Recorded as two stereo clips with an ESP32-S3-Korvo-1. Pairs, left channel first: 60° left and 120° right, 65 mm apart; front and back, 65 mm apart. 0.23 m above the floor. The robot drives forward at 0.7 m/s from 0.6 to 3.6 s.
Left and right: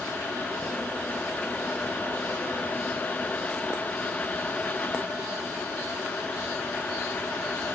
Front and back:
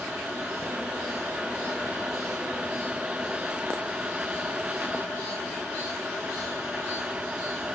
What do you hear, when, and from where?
Only background noise.